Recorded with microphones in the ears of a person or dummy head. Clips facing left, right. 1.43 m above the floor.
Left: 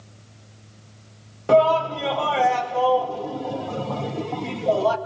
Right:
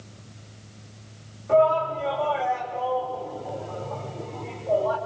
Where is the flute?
No flute in this recording.